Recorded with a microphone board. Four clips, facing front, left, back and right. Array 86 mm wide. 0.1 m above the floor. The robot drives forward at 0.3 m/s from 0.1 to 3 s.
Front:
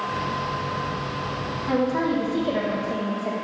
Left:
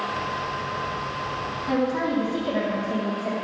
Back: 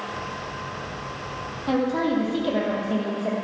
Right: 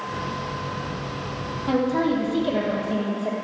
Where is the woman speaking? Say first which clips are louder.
Right 3 dB, even; 135° right, 3 m; by 3.3 s 140° right, 3 m.